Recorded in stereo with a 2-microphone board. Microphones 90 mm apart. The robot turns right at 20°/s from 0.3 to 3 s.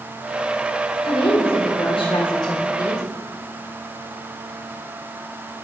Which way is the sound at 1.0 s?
95° left.